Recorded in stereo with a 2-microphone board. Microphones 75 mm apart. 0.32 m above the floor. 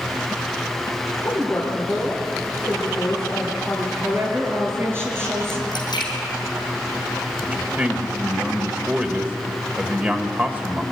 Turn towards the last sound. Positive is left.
turn(degrees=-20)  # may be behind; listen again after turning